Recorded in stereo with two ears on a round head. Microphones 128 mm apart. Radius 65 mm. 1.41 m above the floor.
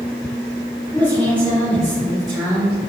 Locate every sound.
0.9 s a woman speaking: 15° left (ahead or behind), 4 m; by 2.8 s 5° right (ahead or behind), 4.5 m